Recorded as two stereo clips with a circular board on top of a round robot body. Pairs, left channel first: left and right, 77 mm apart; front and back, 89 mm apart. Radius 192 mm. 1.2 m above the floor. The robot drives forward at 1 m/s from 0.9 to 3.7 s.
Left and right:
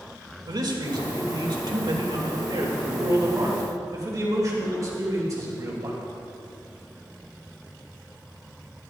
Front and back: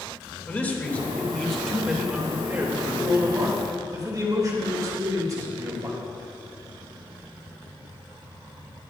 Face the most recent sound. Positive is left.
turn(degrees=-130)